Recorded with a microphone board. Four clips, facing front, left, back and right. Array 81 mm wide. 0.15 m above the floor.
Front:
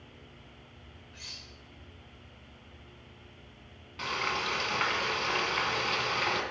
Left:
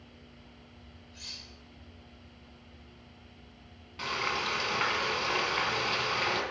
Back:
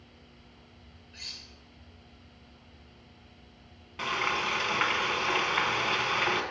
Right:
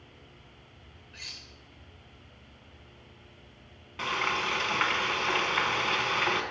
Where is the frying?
130° right, 1.3 m.